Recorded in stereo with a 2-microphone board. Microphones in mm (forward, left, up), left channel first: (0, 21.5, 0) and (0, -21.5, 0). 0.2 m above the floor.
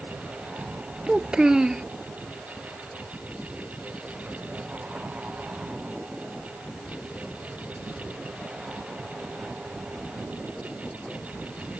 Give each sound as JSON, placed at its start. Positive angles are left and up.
{"t": 1.1, "sound": "a child speaking", "side_deg": -20}